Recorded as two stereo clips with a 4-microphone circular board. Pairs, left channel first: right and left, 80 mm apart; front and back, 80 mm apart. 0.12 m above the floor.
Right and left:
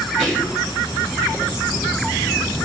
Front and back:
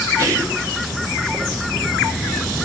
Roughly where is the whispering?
Behind.